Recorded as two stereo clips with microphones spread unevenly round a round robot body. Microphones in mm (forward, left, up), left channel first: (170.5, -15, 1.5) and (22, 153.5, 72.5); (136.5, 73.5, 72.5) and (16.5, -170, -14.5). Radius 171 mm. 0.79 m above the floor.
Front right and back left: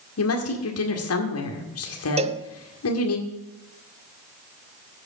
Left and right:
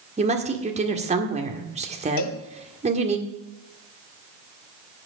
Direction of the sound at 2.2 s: 75° left.